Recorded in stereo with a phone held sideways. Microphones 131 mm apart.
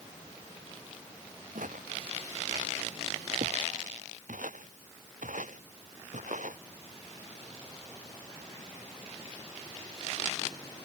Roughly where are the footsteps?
Right.